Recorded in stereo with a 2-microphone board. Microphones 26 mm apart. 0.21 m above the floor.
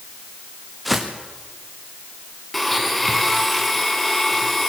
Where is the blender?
5° left (ahead or behind), 2.5 m.